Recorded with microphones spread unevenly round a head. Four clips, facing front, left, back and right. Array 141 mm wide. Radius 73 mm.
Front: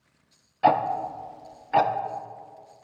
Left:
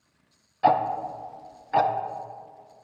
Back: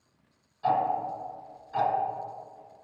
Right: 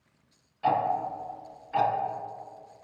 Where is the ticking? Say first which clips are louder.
Left 4 dB, front 4 dB; 35° left, 0.6 m.